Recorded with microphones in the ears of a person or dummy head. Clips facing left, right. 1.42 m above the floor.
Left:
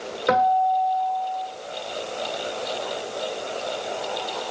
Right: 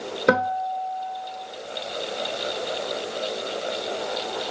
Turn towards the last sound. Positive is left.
turn(degrees=-50)  # may be behind; listen again after turning